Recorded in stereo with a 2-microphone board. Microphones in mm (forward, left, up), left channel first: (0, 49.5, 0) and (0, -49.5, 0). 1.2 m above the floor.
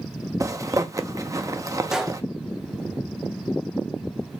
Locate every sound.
0.4 s a zipper: 35° right (ahead or behind), 0.7 m
1.9 s a gunshot: 5° right (ahead or behind), 1.1 m